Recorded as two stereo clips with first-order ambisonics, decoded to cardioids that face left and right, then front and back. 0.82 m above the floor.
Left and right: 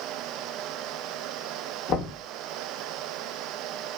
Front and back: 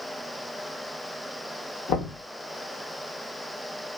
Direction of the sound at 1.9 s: 35° left.